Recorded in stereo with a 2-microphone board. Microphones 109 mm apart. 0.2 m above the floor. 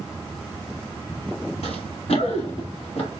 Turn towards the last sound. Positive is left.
turn(degrees=75)  # may be behind; listen again after turning